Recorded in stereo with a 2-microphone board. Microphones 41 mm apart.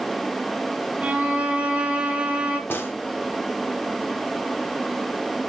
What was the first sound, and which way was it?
A violin, 30° right (ahead or behind).